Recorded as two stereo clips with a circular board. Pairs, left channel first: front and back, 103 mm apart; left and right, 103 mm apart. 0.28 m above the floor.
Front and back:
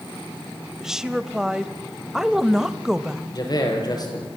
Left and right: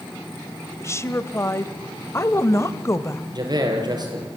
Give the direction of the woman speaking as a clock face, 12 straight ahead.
9 o'clock.